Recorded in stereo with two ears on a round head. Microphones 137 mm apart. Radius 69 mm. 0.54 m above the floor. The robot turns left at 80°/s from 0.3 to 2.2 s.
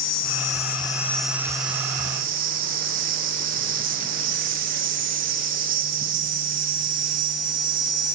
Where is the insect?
75° left, 2 m; by 8.2 s 80° right, 2 m.